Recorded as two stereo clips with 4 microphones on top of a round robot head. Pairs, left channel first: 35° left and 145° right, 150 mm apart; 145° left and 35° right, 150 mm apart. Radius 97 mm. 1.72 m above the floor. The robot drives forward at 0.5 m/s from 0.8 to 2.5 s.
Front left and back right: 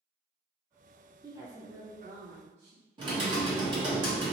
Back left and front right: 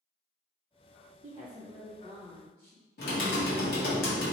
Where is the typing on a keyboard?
155° left, 0.8 m.